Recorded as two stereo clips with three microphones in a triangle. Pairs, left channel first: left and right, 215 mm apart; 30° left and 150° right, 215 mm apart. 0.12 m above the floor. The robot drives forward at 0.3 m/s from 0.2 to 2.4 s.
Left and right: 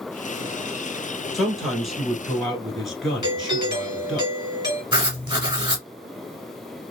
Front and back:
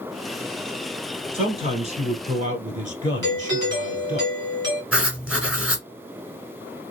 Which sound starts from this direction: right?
Writing, at 4.9 s.